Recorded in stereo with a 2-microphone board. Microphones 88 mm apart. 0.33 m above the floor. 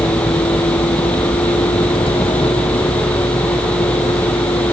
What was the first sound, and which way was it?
A vehicle, 80° left.